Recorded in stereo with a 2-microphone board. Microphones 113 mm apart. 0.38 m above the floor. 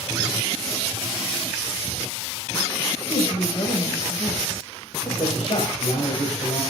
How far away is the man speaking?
About 2.5 m.